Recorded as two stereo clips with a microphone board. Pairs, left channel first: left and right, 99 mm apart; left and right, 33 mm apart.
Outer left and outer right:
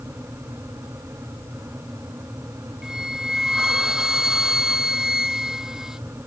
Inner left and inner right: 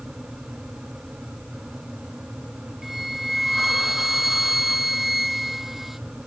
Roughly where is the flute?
Centre.